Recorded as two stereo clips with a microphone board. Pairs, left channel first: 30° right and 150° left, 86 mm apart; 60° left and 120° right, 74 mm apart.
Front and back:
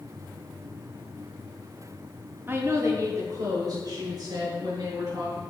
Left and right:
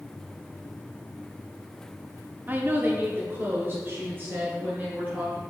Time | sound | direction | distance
2.5 | a woman speaking | 165° right | 0.7 m